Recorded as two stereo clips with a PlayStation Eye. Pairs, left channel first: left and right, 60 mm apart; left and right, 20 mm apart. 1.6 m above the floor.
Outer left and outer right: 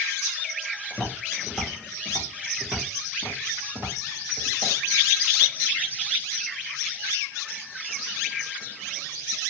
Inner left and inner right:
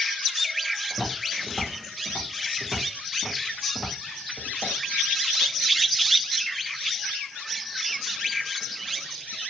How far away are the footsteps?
About 1.6 m.